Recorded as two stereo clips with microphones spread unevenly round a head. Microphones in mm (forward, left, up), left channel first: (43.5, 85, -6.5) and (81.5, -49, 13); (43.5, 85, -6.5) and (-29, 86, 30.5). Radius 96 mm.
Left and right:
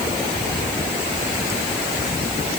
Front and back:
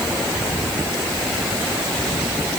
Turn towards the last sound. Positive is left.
No sound to turn to.